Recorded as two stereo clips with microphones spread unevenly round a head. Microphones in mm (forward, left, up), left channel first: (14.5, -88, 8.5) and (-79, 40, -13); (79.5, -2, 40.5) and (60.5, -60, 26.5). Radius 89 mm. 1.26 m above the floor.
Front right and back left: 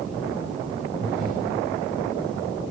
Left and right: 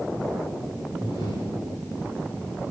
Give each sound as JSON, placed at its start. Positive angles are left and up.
{"t": 1.0, "sound": "breathing", "azimuth_deg": 80, "distance_m": 3.0}